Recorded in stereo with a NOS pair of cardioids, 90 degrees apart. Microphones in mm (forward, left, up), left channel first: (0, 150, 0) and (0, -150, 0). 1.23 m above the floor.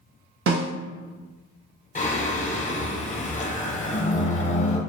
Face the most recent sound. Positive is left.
turn(degrees=25)